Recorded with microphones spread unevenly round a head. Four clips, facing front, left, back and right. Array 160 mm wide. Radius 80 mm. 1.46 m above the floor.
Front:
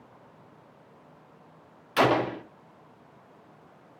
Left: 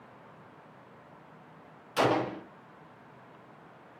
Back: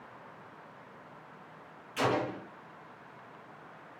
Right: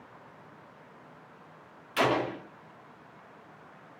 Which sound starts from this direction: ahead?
A gunshot, at 2.0 s.